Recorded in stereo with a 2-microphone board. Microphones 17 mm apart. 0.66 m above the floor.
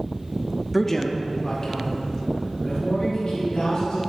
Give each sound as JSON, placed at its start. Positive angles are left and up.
{"t": 0.7, "sound": "a man speaking", "side_deg": 5, "distance_m": 0.6}